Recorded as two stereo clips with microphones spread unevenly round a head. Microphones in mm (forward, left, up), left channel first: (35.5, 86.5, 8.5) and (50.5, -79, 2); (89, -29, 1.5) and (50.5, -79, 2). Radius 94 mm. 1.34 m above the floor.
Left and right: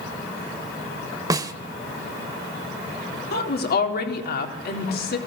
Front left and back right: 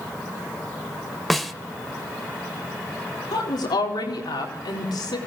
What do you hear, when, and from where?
1.3 s a snare drum: 35° right, 1.2 m
3.3 s a woman speaking: 70° left, 4 m